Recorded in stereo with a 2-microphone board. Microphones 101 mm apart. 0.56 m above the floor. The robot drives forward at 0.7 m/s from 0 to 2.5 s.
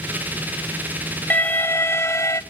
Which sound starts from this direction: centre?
An alarm, at 1.3 s.